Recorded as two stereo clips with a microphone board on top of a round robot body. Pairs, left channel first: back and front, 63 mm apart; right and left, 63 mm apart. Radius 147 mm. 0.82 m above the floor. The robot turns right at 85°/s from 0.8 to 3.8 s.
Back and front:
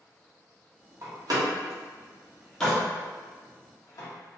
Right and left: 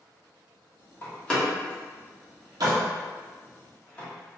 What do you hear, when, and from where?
1.0 s a door slam: 35° right, 1.0 m; by 4.1 s 160° right, 1.0 m